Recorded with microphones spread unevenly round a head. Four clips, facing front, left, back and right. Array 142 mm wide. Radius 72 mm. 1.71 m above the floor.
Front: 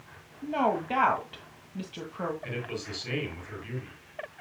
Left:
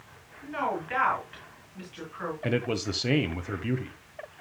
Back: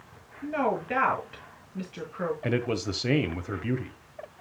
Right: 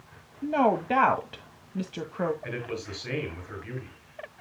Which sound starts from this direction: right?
A woman speaking, at 0.4 s.